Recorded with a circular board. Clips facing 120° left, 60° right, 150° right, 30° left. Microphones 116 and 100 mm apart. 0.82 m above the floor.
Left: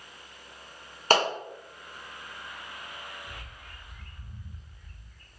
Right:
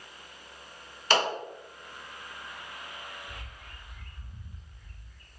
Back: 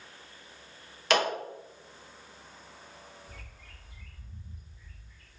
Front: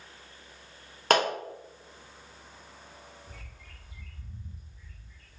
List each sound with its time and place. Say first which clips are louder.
1.1 s a clap: left 3 dB, front 2 dB; 75° left, 1.1 m
3.3 s a bird: even, front 1 dB; 90° left, 1.7 m